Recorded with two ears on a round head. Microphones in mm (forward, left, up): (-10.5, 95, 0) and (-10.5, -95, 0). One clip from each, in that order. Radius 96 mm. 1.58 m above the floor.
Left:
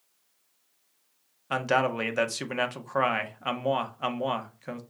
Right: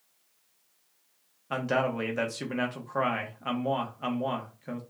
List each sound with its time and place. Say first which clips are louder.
1.5 s a man speaking: left 3 dB; 35° left (ahead or behind), 0.7 m